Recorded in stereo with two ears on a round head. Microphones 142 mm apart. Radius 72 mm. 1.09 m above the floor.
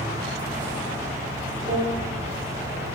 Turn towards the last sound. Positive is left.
turn(degrees=-40)  # may be behind; listen again after turning